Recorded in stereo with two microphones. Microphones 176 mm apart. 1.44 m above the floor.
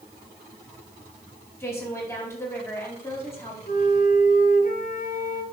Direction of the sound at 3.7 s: 55° left (ahead or behind).